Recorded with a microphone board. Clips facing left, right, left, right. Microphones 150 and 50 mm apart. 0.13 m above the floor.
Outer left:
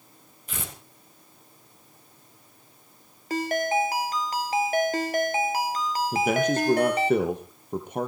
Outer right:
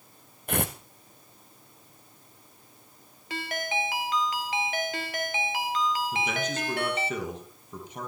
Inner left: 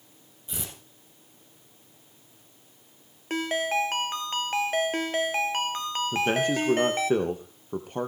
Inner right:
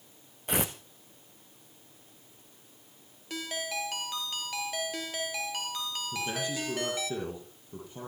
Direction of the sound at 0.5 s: 55° right (ahead or behind).